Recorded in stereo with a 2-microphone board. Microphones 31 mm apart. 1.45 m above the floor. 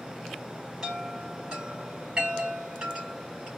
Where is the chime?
25° right (ahead or behind), 3.5 m.